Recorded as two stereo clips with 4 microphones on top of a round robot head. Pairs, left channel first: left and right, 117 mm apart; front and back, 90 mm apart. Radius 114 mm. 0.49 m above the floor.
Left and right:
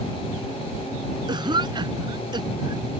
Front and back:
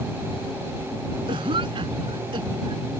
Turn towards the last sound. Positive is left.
turn(degrees=-140)